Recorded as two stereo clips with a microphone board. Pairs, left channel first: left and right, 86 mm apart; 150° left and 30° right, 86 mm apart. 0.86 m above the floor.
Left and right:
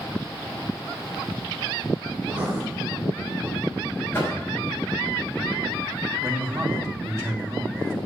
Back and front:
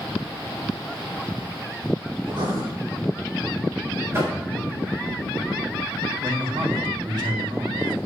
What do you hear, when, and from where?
2.2 s writing: 20° right, 3 m
4.1 s knocking: 30° left, 4.5 m
6.2 s a man speaking: 35° right, 1.9 m